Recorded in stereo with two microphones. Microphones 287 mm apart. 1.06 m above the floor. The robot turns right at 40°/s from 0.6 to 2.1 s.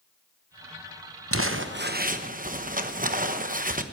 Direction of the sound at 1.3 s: 70° right.